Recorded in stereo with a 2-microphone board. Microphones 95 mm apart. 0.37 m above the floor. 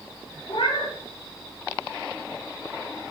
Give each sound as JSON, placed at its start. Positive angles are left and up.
{"t": 0.5, "sound": "a cat meowing", "side_deg": 70, "distance_m": 1.3}